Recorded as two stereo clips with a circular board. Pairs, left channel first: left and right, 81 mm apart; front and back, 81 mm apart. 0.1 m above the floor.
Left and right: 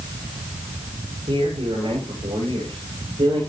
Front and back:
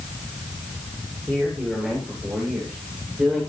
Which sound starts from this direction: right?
A man speaking, at 1.3 s.